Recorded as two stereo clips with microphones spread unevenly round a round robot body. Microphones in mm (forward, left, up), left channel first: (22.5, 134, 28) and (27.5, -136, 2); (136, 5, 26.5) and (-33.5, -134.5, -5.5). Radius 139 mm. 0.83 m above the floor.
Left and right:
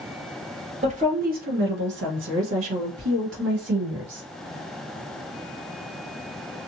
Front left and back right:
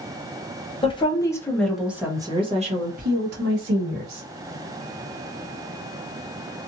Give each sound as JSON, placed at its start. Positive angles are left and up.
{"t": 0.8, "sound": "a woman speaking", "azimuth_deg": -30, "distance_m": 1.4}